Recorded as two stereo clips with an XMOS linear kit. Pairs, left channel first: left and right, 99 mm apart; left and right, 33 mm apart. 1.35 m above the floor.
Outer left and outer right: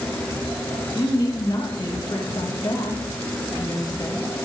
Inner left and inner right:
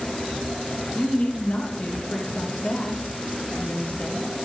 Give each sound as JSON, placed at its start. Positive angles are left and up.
{"t": 0.9, "sound": "a woman speaking", "side_deg": 45, "distance_m": 1.5}